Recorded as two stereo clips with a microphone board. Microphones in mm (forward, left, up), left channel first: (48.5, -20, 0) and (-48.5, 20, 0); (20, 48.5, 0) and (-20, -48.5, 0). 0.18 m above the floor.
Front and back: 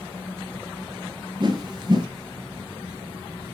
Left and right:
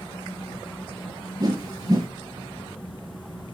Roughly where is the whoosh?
Behind.